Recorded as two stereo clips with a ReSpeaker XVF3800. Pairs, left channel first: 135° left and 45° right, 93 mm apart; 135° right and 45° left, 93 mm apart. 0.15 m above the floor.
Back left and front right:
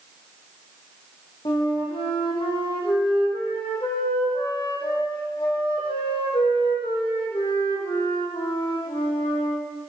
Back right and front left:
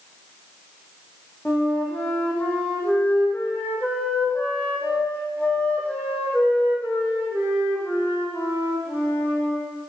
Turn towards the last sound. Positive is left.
turn(degrees=150)